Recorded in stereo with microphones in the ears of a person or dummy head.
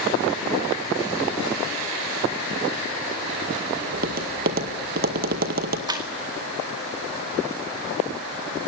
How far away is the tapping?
About 1.9 m.